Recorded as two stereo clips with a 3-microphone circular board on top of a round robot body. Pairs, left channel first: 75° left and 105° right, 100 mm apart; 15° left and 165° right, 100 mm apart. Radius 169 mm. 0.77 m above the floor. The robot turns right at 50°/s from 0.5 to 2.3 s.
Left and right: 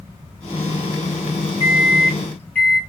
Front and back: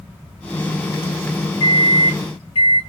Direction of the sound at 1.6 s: 35° right.